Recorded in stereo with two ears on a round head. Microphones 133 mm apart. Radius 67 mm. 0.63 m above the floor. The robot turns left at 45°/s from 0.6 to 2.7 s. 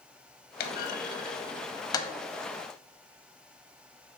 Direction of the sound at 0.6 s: 65° left (ahead or behind).